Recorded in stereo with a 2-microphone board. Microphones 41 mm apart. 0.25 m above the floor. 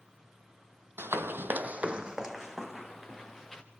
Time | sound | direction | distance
1.0 | running footsteps | 75° right (ahead or behind) | 0.7 m